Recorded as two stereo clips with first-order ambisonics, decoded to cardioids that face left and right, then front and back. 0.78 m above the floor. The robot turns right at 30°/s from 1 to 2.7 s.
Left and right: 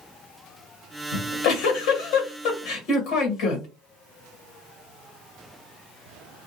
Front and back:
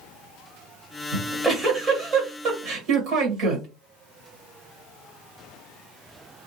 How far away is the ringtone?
No ringtone in this recording.